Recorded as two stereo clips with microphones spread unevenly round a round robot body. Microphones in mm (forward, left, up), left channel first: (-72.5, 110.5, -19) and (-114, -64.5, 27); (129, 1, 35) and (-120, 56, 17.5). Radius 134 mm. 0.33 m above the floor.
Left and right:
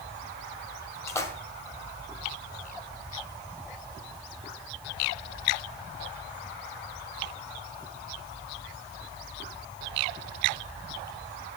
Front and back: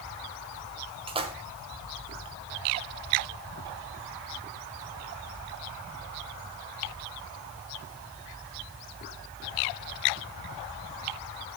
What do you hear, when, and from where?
1.1 s a splash: 120° left, 1.8 m